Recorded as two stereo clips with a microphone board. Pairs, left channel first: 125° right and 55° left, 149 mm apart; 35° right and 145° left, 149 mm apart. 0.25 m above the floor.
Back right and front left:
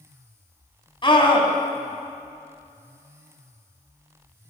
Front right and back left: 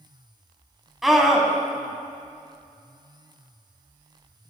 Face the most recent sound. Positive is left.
turn(degrees=-125)